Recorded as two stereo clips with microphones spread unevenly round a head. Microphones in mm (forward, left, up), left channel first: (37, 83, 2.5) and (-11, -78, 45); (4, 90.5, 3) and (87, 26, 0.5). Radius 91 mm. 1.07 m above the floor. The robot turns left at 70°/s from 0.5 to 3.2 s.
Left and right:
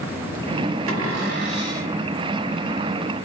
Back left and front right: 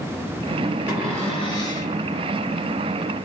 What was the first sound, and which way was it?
A cupboard door, 115° right.